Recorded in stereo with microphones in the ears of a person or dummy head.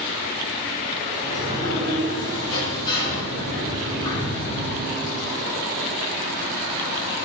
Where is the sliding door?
20° left (ahead or behind), 1.0 m.